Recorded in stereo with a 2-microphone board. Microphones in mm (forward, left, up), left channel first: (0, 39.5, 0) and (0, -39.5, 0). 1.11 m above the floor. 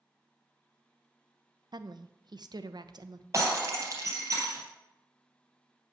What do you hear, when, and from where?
1.7 s a woman speaking: 65° right (ahead or behind), 0.7 m
3.3 s breaking glass: 40° right (ahead or behind), 3 m